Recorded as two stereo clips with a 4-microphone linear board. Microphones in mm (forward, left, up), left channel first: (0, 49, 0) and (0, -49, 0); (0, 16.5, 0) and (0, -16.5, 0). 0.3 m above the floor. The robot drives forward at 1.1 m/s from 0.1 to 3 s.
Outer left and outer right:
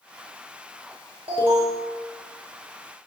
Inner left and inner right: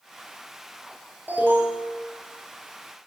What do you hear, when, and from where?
1.3 s an alarm: 75° right (ahead or behind), 7.5 m; by 1.9 s 80° right, 7.5 m